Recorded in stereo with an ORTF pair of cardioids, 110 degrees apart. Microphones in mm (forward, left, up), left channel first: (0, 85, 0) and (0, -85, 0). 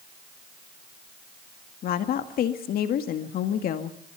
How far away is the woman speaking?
About 1.9 m.